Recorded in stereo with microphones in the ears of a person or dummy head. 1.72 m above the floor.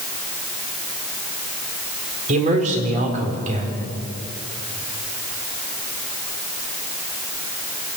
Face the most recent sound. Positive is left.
turn(degrees=-45)  # may be behind; listen again after turning